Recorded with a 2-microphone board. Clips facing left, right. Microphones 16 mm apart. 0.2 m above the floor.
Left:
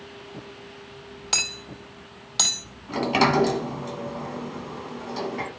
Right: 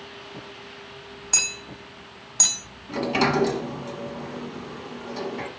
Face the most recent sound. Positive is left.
turn(degrees=15)  # may be behind; listen again after turning